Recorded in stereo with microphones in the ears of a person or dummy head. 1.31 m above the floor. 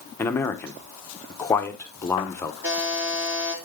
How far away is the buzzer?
About 4 m.